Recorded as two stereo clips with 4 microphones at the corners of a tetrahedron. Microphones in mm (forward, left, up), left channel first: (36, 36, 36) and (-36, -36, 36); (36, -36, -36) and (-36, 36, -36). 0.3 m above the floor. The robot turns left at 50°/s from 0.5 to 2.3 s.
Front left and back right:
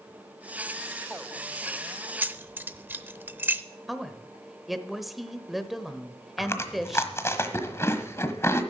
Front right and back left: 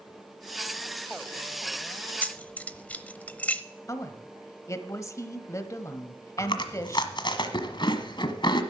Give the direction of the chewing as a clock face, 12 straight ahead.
1 o'clock.